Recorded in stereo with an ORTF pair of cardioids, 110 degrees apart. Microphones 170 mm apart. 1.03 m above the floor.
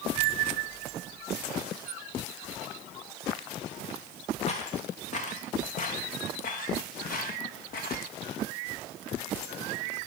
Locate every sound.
4.5 s footsteps: 40° left, 6 m; by 8.1 s 55° left, 7 m